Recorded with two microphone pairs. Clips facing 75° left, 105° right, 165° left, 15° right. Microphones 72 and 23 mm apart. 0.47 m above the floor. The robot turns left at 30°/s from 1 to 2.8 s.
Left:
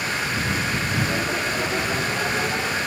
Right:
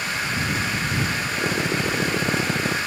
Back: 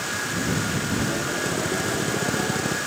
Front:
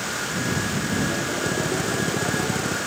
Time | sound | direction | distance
1.4 | a drill | 80° right | ?